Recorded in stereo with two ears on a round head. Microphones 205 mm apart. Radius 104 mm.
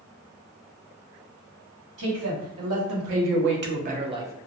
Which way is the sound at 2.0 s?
80° right.